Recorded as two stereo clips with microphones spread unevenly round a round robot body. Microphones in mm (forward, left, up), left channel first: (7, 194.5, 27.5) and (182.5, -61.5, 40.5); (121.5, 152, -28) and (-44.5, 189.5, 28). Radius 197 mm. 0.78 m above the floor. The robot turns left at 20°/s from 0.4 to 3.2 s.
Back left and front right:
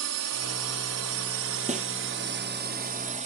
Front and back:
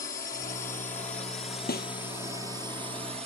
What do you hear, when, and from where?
0.0 s a drone: 65° right; by 3.3 s 120° right
1.7 s a snare drum: 10° left